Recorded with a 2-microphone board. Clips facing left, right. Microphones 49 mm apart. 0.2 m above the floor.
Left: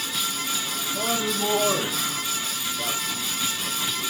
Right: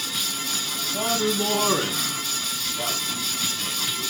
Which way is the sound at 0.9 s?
40° right (ahead or behind).